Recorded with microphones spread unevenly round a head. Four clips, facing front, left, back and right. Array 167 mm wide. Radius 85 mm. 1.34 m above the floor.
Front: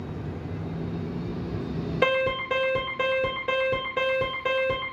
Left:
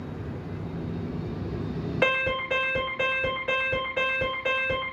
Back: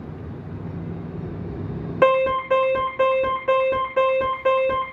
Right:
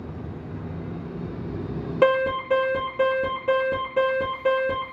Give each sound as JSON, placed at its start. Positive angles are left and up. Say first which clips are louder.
{"t": 2.0, "sound": "an alarm", "louder": "right 7 dB, back 8 dB", "azimuth_deg": -120, "distance_m": 2.5}